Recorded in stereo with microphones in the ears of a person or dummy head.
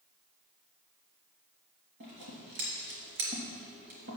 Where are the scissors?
65° right (ahead or behind), 3.5 m.